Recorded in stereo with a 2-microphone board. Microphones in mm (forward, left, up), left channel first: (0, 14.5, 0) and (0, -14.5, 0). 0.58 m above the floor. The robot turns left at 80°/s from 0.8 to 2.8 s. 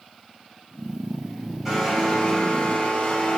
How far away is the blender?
About 3 m.